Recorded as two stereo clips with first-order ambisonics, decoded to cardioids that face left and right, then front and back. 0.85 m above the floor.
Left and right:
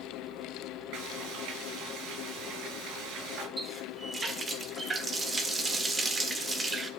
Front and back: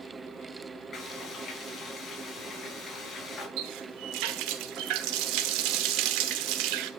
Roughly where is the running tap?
Behind.